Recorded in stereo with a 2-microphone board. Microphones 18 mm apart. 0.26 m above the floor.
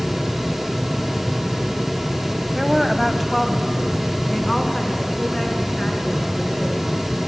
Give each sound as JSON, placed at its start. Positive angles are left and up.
{"t": 2.5, "sound": "a woman speaking", "side_deg": -10, "distance_m": 1.4}